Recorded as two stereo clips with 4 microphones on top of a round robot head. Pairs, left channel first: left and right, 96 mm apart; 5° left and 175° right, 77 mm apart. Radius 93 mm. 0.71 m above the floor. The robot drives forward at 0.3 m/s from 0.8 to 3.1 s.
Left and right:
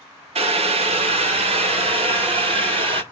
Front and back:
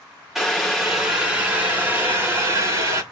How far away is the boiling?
About 1.2 m.